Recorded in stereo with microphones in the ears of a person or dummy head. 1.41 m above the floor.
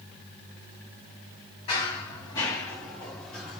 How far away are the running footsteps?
About 1.7 m.